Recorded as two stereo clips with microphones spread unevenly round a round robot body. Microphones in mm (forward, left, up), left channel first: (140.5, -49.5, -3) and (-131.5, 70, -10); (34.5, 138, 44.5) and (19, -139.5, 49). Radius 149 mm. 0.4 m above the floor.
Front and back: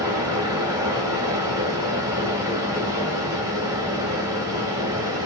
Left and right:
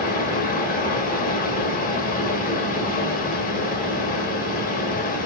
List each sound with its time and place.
0.0 s running water: 90° left, 1.0 m